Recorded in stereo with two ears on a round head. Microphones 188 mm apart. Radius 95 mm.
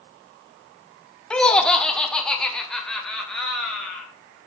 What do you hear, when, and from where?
1.3 s laughter: 5° left (ahead or behind), 0.7 m